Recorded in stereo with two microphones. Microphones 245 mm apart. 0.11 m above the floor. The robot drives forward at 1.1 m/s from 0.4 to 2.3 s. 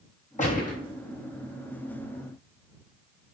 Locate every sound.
0.4 s a gunshot: 30° left (ahead or behind), 5.5 m; by 0.8 s 35° left (ahead or behind), 5 m